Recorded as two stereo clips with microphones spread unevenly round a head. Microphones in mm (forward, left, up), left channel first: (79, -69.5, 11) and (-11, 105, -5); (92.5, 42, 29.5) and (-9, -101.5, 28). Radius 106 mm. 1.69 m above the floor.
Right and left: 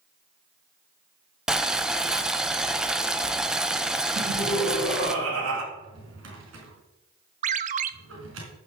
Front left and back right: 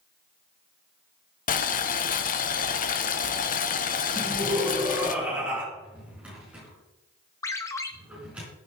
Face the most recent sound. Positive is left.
turn(degrees=115)